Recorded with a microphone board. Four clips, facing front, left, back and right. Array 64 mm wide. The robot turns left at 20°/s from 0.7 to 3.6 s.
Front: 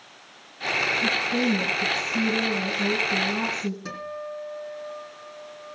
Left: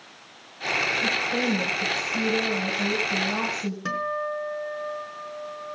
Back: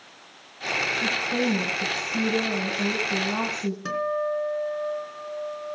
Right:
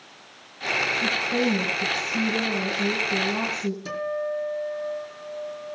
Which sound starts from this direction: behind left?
A guitar, at 3.9 s.